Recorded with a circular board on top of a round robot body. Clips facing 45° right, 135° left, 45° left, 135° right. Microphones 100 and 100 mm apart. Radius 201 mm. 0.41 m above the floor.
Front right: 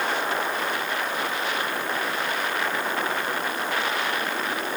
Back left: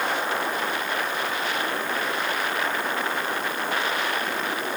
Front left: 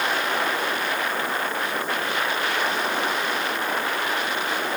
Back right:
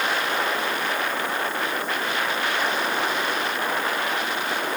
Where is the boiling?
No boiling in this recording.